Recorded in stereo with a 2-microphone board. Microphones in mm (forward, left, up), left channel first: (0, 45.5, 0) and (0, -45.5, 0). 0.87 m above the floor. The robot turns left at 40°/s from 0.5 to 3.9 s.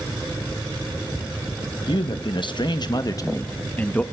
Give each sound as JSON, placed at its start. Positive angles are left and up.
{"t": 1.9, "sound": "a man speaking", "azimuth_deg": 100, "distance_m": 0.7}